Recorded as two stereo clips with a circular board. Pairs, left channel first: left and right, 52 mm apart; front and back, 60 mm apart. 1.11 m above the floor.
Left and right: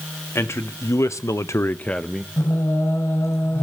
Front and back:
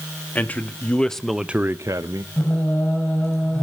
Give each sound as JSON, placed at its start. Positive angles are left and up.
{"t": 0.3, "sound": "a man speaking", "azimuth_deg": 60, "distance_m": 1.6}
{"t": 2.4, "sound": "singing", "azimuth_deg": 80, "distance_m": 6.0}